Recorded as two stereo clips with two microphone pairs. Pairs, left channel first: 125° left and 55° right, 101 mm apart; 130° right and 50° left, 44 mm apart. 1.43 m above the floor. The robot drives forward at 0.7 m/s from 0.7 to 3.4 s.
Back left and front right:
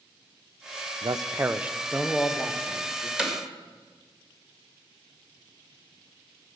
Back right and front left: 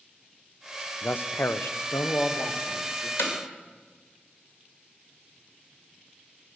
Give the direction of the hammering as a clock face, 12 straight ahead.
5 o'clock.